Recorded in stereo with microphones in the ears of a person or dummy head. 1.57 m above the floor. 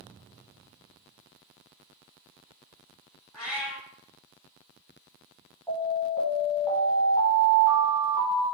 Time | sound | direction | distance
3.3 | a cat meowing | 5° left (ahead or behind) | 1.4 m
5.7 | an alarm | 20° left (ahead or behind) | 1.4 m